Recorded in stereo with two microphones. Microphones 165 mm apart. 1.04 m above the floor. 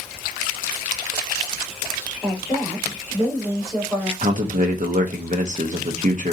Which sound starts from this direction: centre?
A woman speaking, at 2.2 s.